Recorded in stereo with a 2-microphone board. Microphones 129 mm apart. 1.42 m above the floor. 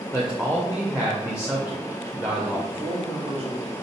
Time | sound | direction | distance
0.1 | a man speaking | 10° right (ahead or behind) | 0.7 m
2.7 | a man speaking | 50° right (ahead or behind) | 1.2 m